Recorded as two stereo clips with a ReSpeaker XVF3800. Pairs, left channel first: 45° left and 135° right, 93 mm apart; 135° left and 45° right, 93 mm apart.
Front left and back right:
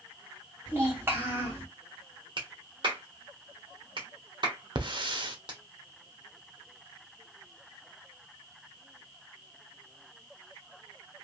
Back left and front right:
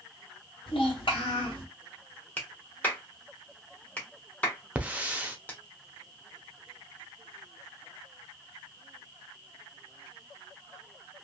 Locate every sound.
0.7 s a child speaking: 160° left, 1.9 m
2.4 s a clap: 155° right, 1.2 m
4.8 s a hiss: 120° right, 0.6 m